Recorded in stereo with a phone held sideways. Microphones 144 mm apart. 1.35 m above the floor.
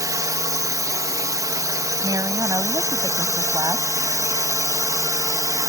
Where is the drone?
25° right (ahead or behind).